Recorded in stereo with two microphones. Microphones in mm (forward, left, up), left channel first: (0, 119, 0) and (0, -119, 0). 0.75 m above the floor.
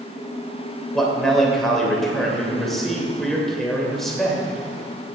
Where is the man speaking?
Centre (ahead or behind), 2.5 m.